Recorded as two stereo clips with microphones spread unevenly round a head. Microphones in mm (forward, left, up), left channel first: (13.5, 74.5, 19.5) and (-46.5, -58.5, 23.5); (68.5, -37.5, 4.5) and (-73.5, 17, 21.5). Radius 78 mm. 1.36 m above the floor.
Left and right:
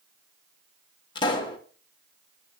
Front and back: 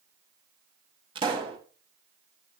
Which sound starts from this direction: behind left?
A pop, at 1.1 s.